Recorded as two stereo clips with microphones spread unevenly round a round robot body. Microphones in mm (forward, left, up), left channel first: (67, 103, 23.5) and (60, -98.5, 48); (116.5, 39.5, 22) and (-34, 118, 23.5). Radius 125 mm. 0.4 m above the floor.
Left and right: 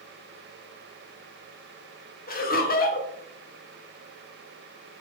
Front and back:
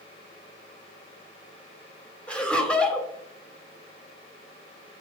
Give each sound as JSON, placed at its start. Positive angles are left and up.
{"t": 2.3, "sound": "laughter", "azimuth_deg": 55, "distance_m": 1.8}